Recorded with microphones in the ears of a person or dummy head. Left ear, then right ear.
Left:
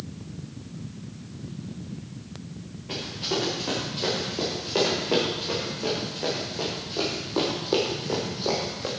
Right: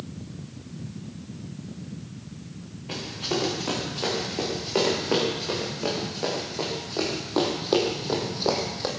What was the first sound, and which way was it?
Running footsteps, 15° right (ahead or behind).